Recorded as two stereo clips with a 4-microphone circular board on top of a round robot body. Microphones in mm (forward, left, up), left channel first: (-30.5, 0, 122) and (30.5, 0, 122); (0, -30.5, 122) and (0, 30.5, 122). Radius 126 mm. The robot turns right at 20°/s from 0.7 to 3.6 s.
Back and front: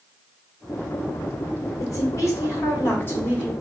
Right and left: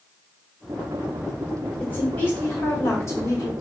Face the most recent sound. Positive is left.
turn(degrees=-120)